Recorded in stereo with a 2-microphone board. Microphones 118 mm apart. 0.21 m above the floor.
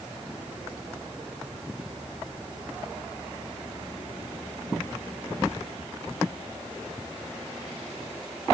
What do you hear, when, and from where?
Only background noise.